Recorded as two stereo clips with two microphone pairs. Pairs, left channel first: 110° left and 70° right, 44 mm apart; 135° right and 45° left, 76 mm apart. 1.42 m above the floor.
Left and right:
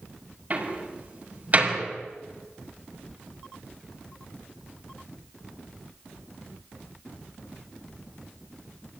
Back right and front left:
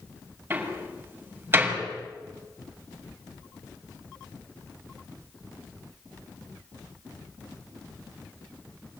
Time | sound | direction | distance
0.5 | a door slam | 15° right | 7 m